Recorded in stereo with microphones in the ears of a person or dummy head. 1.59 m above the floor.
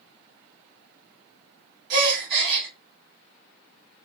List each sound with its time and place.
1.9 s a gasp: 60° right (ahead or behind), 0.9 m